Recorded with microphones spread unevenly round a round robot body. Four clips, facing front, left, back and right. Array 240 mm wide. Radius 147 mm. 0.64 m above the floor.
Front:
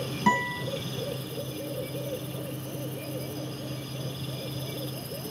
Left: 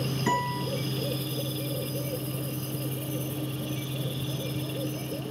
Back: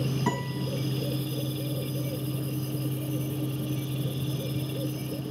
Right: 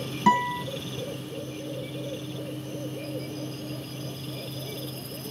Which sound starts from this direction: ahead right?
A guitar, at 0.3 s.